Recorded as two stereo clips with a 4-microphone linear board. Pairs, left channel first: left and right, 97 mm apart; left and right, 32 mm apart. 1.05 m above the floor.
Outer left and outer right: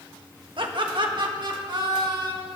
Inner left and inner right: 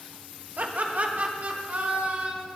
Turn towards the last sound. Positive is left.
turn(degrees=-45)  # may be behind; listen again after turning